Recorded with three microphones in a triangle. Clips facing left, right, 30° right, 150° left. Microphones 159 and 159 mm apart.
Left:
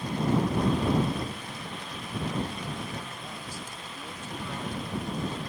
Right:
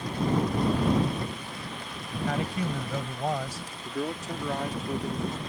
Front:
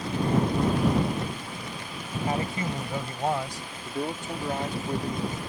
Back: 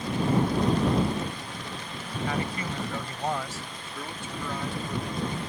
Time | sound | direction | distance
2.3 | a man speaking | 90° right | ?
3.9 | a man speaking | 80° right | ?